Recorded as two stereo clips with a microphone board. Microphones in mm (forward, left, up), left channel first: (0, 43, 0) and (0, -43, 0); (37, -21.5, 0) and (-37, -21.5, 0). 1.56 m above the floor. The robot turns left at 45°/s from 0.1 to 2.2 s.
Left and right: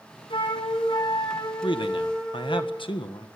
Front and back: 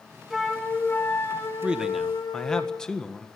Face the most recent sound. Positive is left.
turn(degrees=80)